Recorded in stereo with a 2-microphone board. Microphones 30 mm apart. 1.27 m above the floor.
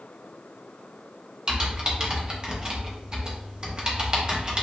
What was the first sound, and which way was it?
Typing on a keyboard, 30° right (ahead or behind).